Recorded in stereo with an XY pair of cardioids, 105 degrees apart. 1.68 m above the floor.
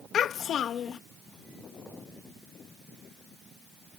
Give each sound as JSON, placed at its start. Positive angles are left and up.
{"t": 0.1, "sound": "a child speaking", "azimuth_deg": 60}